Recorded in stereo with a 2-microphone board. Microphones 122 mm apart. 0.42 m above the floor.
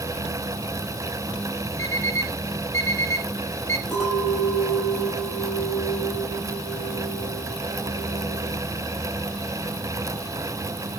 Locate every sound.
1.8 s an alarm clock: 80° right, 4 m
3.9 s a clink: 5° left (ahead or behind), 7.5 m